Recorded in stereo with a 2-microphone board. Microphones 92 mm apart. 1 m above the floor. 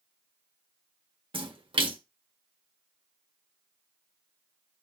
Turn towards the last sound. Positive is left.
turn(degrees=-60)  # may be behind; listen again after turning